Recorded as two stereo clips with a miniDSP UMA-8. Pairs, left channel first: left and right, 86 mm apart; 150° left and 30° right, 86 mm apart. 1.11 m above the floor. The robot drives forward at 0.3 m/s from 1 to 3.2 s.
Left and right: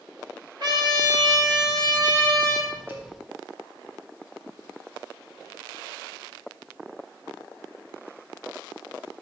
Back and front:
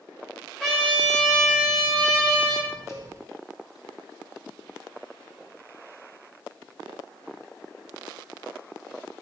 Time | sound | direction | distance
0.6 | a trumpet | 125° right | 3 m
2.9 | a cowbell | 160° right | 3 m